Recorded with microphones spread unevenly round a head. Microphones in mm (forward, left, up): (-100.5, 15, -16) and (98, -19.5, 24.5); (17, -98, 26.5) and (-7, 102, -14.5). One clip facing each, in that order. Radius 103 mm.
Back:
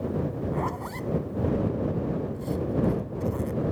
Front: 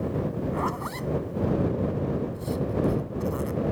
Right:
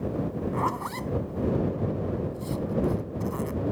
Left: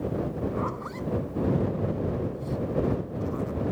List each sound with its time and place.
0.5 s a zipper: 90° right